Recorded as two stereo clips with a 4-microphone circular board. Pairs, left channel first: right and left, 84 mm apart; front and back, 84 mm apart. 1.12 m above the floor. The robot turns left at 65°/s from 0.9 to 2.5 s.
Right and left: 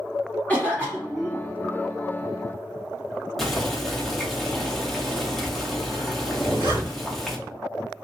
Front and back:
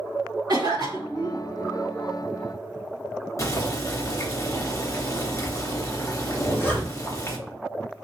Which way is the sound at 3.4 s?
5° right.